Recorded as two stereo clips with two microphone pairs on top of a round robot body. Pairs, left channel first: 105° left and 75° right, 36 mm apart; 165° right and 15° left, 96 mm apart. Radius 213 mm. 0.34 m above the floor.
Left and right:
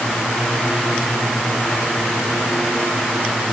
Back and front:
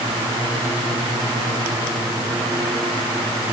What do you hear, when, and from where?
Only background noise.